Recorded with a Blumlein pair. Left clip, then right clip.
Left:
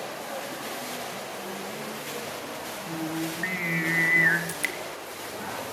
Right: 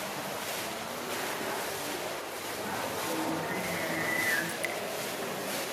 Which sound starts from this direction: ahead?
Dripping, at 4.5 s.